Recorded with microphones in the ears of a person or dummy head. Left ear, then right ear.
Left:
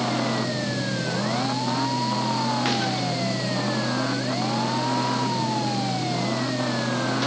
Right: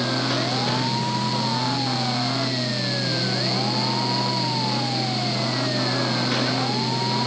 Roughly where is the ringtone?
I don't hear a ringtone.